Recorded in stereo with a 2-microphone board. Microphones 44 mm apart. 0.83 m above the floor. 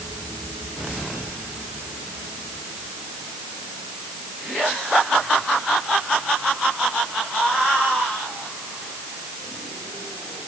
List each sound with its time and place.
Only background noise.